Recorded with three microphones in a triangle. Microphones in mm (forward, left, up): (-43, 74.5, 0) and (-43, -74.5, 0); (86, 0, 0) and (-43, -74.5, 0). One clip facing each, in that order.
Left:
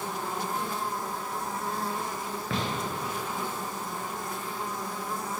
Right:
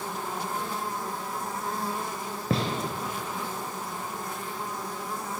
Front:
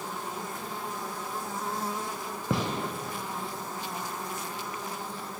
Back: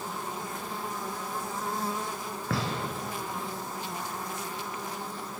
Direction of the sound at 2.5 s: 40° right.